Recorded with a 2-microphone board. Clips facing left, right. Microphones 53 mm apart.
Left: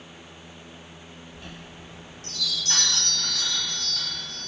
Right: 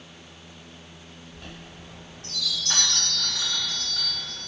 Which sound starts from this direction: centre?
A chime, at 1.3 s.